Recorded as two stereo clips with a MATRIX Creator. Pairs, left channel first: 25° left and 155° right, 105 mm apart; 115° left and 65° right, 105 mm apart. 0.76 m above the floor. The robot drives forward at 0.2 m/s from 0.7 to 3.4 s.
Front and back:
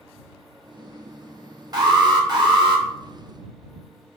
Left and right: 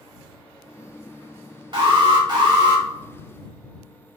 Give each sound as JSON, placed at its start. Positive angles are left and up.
{"t": 1.7, "sound": "an alarm", "azimuth_deg": -110, "distance_m": 1.1}